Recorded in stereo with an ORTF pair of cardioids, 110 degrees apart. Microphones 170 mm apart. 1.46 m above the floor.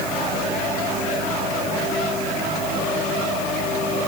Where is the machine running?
65° right, 5 m.